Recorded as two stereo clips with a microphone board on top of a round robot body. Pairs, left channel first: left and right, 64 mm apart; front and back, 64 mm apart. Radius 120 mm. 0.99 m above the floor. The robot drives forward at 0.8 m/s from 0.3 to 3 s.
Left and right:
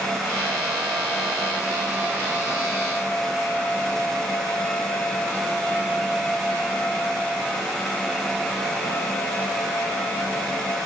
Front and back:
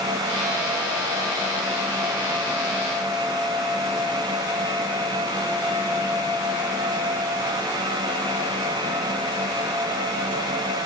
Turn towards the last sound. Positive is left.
No sound to turn to.